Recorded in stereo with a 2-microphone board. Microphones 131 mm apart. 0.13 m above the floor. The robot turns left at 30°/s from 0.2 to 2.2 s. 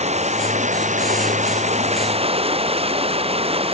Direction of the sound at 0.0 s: 65° right.